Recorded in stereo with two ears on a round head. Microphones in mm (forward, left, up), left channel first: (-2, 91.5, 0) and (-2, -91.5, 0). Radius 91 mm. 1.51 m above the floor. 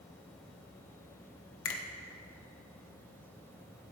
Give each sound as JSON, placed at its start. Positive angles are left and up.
{"t": 1.6, "sound": "a finger snap", "side_deg": 70, "distance_m": 1.3}